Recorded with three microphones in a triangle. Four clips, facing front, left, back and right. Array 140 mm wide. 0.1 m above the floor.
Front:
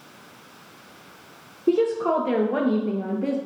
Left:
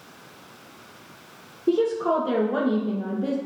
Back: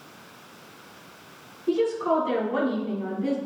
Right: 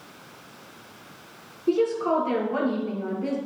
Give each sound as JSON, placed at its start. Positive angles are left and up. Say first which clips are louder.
{"t": 1.7, "sound": "a woman speaking", "louder": "left 1 dB, front 3 dB", "azimuth_deg": 20, "distance_m": 1.8}